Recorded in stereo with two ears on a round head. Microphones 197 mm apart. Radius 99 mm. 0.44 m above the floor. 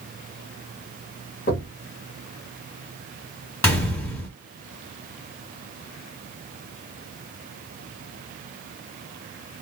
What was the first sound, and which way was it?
Knocking, 45° left (ahead or behind).